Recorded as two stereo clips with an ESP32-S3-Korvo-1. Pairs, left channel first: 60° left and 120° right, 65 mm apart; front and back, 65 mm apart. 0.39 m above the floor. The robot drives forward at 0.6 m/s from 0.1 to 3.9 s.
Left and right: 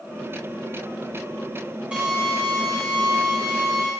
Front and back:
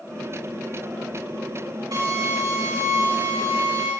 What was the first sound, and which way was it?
A drill, 165° left.